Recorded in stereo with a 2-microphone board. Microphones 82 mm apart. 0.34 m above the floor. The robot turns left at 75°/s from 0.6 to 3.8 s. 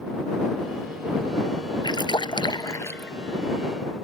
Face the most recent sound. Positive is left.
turn(degrees=-35)